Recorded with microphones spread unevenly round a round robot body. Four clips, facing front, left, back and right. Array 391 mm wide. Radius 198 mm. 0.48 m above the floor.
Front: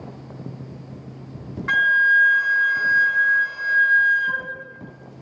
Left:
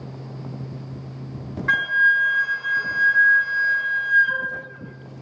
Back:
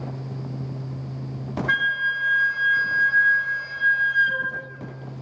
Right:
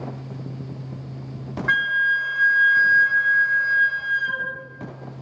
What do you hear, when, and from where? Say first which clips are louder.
1.7 s a flute: left 2 dB, front 7 dB; straight ahead, 0.7 m